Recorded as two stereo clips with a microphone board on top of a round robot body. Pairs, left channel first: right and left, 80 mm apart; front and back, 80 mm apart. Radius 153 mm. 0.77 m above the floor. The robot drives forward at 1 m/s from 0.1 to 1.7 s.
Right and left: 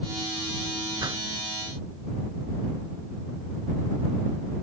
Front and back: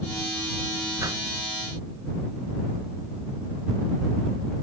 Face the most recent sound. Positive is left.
turn(degrees=135)